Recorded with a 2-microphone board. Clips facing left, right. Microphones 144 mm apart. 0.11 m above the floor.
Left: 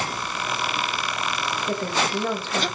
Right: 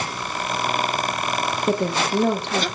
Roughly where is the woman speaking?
Right.